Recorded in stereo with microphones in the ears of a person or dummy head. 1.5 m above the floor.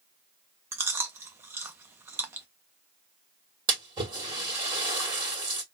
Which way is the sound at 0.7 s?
10° right (ahead or behind).